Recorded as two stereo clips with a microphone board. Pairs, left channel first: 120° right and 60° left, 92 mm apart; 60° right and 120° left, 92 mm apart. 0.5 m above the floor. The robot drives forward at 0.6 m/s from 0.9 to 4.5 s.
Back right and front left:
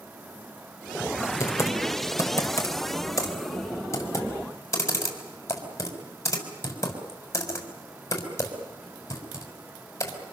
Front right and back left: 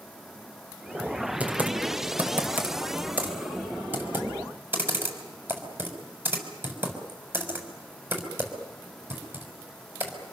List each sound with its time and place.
1.4 s typing on a keyboard: 170° right, 2 m; by 10.3 s 175° right, 4 m